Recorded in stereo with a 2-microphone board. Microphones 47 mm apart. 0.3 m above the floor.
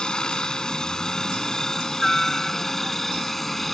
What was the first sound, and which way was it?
A helicopter, 15° left (ahead or behind).